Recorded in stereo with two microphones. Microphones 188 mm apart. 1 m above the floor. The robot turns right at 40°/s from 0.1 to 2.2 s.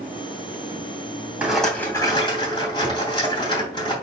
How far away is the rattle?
About 3 m.